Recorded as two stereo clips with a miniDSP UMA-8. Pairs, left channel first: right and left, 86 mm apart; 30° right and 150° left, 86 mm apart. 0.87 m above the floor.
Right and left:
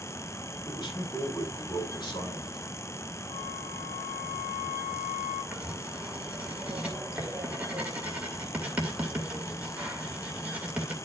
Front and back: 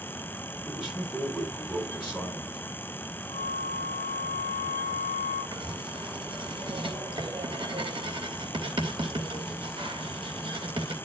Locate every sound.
0.7 s a man speaking: 130° right, 7.5 m
3.3 s a flute: 170° right, 6.5 m
5.5 s writing: 165° left, 2.5 m